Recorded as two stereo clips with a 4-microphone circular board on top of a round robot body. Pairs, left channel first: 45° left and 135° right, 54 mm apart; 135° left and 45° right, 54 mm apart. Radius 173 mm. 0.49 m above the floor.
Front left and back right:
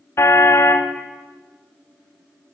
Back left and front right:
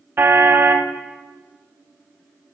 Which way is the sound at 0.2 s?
10° left.